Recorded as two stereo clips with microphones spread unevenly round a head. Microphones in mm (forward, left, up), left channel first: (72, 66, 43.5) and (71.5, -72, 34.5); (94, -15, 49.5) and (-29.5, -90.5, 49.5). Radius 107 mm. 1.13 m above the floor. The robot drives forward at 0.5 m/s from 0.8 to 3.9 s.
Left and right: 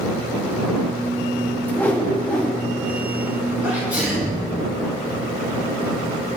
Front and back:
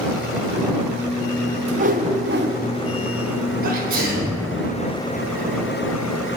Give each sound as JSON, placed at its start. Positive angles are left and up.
{"t": 1.7, "sound": "a whoosh", "azimuth_deg": 165, "distance_m": 0.5}
{"t": 3.6, "sound": "a sneeze", "azimuth_deg": -170, "distance_m": 2.0}